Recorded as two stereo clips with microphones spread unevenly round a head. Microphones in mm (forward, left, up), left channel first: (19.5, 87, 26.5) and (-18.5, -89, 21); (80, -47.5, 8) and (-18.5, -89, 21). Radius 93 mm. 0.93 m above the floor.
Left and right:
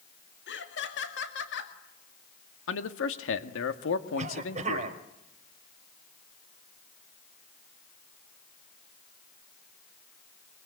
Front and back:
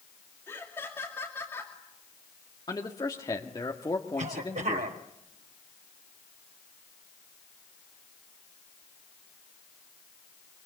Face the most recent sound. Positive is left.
turn(degrees=-155)